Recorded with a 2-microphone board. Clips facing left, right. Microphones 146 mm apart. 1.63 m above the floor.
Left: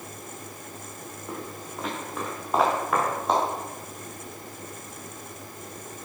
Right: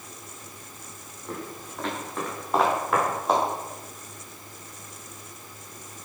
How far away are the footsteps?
About 7.5 m.